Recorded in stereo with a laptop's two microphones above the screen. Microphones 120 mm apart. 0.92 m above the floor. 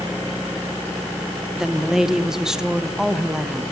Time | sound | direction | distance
1.6 | a woman speaking | 5° right (ahead or behind) | 0.8 m